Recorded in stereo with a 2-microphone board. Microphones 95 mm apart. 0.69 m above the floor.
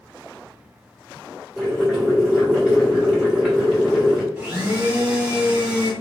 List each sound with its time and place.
1.6 s boiling: 5° right (ahead or behind), 1.7 m
4.4 s a blender: 15° right (ahead or behind), 2.0 m